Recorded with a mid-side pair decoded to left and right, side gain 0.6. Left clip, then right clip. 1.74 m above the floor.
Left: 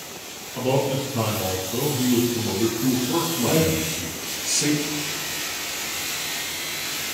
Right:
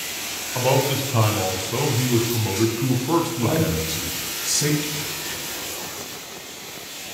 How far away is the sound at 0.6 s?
About 0.7 m.